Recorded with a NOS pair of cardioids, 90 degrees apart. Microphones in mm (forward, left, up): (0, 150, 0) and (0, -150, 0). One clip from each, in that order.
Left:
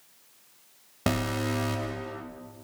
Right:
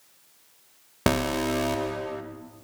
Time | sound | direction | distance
1.1 | an alarm | 25° right | 0.9 m